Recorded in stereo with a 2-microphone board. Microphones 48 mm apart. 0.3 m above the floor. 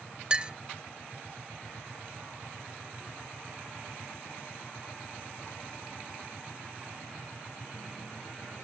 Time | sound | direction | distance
0.3 | a clink | 20° right (ahead or behind) | 0.5 m